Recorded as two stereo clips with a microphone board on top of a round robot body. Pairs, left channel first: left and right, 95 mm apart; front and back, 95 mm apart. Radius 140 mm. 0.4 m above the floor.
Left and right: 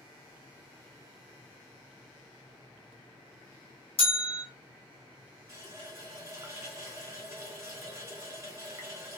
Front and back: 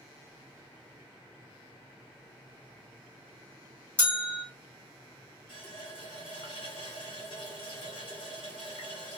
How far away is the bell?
About 1.1 m.